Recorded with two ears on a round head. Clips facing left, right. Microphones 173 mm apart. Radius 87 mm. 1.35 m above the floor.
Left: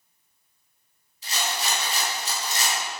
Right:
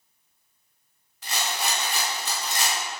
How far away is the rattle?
About 3 m.